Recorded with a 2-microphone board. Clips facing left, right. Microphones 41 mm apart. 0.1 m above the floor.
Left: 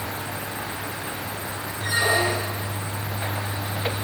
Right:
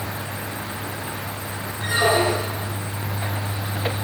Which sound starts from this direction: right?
A squeak, at 1.8 s.